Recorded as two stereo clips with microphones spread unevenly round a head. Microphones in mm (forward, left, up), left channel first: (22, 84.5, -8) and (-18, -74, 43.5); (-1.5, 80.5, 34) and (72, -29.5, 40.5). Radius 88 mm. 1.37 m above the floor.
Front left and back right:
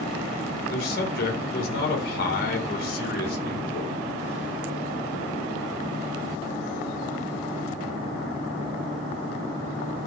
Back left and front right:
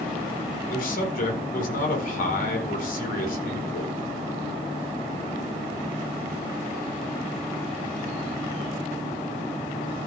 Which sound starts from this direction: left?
A man speaking, at 0.7 s.